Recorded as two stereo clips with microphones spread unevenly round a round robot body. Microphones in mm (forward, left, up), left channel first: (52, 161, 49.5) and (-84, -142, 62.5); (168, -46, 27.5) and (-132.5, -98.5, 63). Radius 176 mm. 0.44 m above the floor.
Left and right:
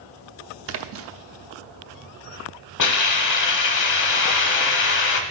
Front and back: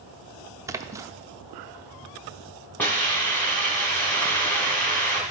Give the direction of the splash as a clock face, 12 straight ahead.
3 o'clock.